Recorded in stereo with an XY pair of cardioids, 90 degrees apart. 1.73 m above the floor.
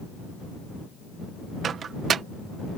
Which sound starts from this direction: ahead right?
A microwave, at 1.6 s.